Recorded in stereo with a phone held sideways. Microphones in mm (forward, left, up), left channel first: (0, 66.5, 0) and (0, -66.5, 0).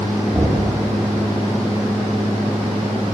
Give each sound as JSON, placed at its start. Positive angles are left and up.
{"t": 0.3, "sound": "knocking", "side_deg": -15, "distance_m": 1.3}